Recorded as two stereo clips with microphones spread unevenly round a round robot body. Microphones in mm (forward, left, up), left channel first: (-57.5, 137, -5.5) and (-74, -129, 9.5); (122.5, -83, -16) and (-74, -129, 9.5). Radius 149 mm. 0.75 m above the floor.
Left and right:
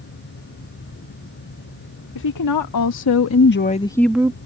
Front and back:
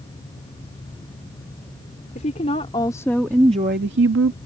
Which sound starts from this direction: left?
A woman speaking, at 2.1 s.